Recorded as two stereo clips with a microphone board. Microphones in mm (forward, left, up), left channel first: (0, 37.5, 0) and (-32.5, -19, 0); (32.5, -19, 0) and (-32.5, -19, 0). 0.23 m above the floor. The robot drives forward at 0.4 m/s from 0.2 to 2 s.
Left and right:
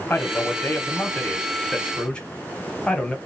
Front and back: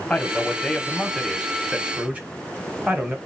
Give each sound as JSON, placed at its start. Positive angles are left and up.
{"t": 0.1, "sound": "a man speaking", "azimuth_deg": 55, "distance_m": 1.1}